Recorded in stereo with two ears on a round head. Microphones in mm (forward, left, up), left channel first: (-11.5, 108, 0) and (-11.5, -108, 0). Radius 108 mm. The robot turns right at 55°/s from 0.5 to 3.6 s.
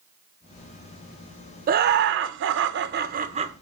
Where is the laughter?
130° right, 0.5 m; by 3.5 s 30° right, 0.5 m.